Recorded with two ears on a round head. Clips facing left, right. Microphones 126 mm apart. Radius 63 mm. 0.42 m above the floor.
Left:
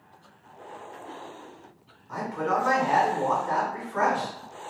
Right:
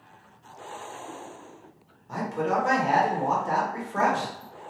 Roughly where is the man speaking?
Right.